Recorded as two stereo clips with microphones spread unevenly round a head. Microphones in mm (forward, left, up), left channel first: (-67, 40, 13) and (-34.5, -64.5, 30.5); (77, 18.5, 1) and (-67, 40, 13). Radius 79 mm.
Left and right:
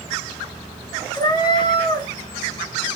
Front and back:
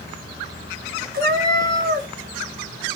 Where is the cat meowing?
160° left, 4.5 m.